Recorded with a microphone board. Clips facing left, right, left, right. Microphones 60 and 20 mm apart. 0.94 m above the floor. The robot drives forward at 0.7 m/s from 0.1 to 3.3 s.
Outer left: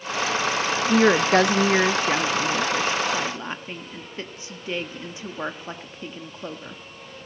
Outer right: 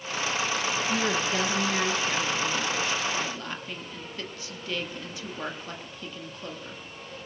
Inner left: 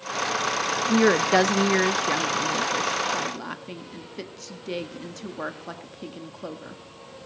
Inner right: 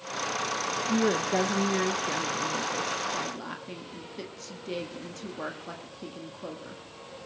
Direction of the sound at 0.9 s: 45° left (ahead or behind).